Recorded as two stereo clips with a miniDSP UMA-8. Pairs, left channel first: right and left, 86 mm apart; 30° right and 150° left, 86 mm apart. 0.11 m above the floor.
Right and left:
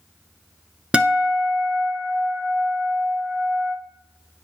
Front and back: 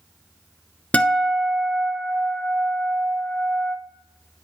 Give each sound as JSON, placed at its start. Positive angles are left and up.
{"t": 0.9, "sound": "a guitar", "azimuth_deg": 25, "distance_m": 0.9}